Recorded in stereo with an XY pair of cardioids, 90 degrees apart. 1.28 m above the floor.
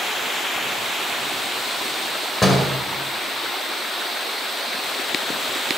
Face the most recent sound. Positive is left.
turn(degrees=30)